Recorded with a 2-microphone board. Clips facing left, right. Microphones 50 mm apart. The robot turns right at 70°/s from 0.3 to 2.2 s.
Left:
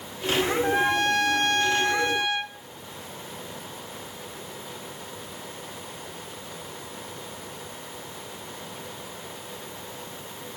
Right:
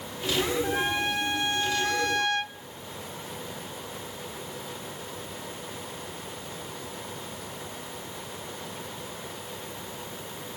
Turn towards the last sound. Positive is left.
turn(degrees=165)